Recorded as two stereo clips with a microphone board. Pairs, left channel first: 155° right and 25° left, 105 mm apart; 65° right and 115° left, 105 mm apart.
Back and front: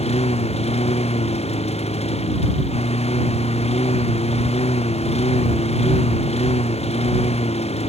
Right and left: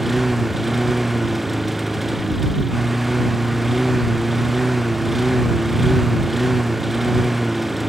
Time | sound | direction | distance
0.0 | a lawn mower | 160° right | ?